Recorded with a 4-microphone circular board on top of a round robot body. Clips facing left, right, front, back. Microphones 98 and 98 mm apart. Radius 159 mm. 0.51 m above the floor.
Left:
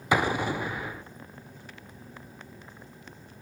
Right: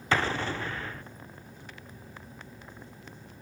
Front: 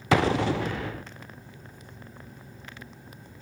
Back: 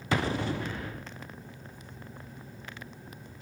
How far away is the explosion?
About 0.7 m.